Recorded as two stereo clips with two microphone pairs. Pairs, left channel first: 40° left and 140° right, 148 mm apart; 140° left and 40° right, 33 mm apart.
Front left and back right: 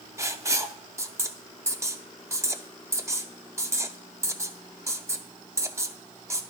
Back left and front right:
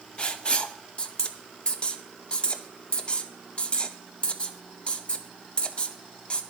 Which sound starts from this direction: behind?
Writing, at 0.2 s.